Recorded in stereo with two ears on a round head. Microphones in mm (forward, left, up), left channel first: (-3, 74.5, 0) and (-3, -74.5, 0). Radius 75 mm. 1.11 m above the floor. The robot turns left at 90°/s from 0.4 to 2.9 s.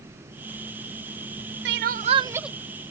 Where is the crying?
100° right; by 2.5 s 175° right.